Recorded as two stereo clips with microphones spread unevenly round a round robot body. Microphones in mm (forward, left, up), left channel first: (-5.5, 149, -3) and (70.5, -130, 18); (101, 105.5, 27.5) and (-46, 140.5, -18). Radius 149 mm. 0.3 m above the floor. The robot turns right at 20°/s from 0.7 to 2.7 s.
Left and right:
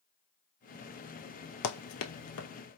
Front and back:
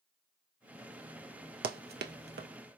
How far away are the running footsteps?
About 0.5 m.